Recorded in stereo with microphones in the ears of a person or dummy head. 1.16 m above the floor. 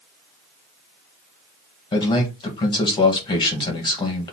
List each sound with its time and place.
1.9 s a man speaking: 20° left (ahead or behind), 1.4 m